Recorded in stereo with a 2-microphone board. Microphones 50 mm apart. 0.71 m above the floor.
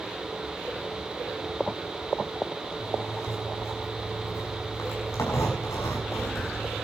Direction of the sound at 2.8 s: 80° left.